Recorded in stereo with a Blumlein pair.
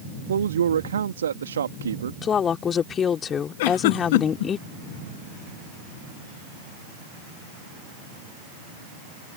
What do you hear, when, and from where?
0.3 s a man speaking: 65° right
2.2 s a woman speaking: 25° left
3.6 s a giggle: 50° left